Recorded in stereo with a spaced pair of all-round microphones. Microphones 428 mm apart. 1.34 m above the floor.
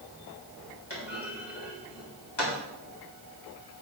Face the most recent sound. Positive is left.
turn(degrees=70)  # may be behind; listen again after turning